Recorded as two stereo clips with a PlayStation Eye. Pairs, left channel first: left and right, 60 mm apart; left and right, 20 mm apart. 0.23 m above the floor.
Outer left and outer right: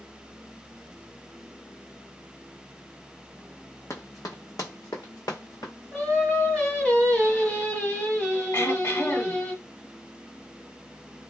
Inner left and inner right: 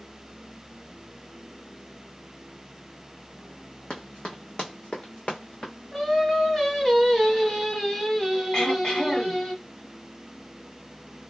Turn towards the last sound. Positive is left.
turn(degrees=40)  # may be behind; listen again after turning